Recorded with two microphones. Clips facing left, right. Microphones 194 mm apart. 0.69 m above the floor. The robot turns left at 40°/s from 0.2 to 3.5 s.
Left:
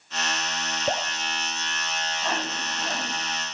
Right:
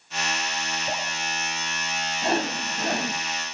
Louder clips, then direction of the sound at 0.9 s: Left 6 dB; 90° left.